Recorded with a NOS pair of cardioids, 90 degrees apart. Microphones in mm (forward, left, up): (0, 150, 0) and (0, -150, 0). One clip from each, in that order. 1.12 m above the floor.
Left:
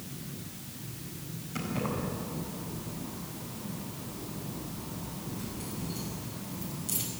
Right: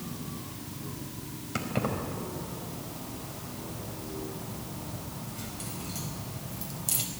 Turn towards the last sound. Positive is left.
turn(degrees=-65)